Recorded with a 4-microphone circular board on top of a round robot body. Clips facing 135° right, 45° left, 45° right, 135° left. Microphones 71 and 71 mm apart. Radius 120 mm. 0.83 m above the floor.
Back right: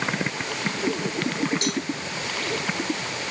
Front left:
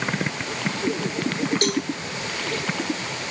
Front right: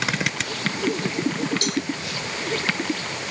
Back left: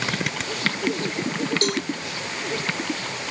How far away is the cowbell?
About 0.9 m.